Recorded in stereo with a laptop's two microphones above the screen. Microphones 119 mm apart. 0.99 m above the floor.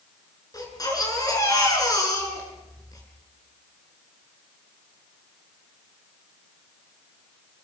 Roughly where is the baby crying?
Left.